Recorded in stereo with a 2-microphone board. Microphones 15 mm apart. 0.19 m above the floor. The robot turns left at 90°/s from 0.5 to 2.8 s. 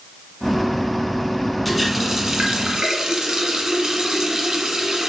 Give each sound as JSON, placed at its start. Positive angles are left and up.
{"t": 1.6, "sound": "a running tap", "azimuth_deg": 10, "distance_m": 1.4}